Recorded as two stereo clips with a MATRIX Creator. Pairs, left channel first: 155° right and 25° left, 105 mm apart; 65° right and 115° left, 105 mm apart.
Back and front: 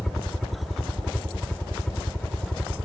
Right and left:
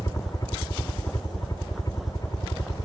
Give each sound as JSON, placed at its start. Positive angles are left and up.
{"t": 0.0, "sound": "a helicopter", "azimuth_deg": -70}